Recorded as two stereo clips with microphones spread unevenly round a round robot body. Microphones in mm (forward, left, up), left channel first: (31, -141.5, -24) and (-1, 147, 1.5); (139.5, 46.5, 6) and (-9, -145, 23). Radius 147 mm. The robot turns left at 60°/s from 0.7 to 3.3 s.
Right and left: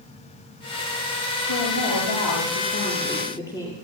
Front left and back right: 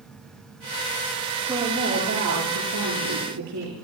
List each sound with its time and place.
1.4 s a woman speaking: 50° right, 9.5 m; by 3.7 s 165° right, 9.5 m